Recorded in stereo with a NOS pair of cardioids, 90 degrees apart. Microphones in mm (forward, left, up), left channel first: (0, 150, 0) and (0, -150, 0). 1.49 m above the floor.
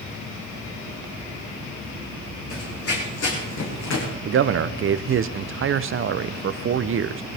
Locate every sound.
2.5 s running footsteps: 50° left, 5.5 m; by 4.1 s 70° left, 5.5 m
4.2 s a man speaking: 45° right, 0.8 m